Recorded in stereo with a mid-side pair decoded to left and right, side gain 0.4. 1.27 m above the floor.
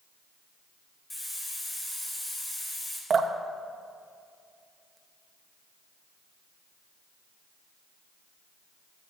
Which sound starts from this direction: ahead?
A hiss, at 1.1 s.